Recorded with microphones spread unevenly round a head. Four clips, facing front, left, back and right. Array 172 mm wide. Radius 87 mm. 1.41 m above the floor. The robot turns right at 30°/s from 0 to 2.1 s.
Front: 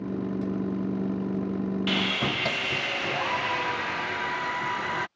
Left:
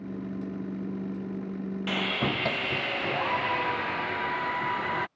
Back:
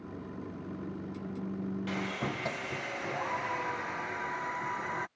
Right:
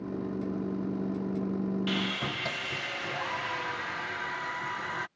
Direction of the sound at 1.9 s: 65° left.